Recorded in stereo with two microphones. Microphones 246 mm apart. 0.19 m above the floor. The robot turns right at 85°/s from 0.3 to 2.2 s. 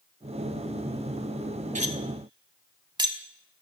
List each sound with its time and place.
1.8 s cutlery clinking: 30° right (ahead or behind), 0.6 m; by 3.2 s 20° right (ahead or behind), 0.6 m